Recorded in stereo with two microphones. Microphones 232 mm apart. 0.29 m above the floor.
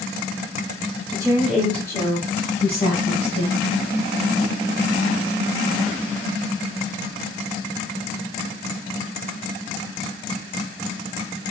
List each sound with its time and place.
1.1 s a woman speaking: 20° right (ahead or behind), 0.9 m; by 3.6 s 50° left (ahead or behind), 1.6 m